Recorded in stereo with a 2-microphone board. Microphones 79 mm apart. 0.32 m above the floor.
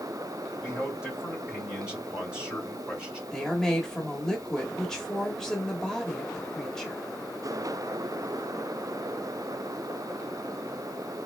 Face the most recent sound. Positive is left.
turn(degrees=5)  # may be behind; listen again after turning